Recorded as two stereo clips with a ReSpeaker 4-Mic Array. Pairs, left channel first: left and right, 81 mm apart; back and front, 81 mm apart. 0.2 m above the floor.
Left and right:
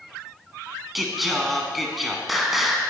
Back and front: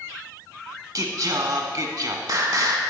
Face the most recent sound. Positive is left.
turn(degrees=0)